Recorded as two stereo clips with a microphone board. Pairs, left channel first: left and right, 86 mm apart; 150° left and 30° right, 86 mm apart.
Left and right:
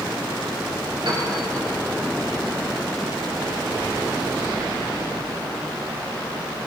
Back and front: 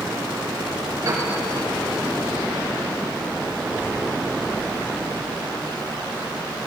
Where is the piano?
75° right, 5 m.